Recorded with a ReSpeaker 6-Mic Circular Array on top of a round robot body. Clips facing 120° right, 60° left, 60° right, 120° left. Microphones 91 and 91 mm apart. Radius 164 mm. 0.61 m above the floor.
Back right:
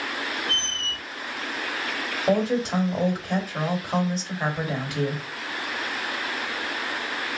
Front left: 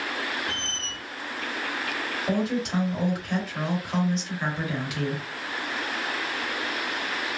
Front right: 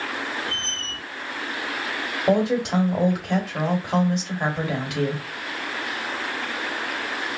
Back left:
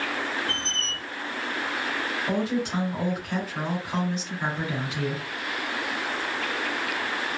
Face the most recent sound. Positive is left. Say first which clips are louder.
# back right 5 dB, front right 8 dB
turn(degrees=-65)